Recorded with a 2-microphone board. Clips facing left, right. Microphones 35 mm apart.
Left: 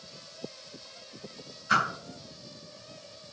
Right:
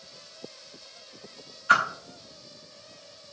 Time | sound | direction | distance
1.7 | a whoosh | 50° right (ahead or behind) | 0.8 m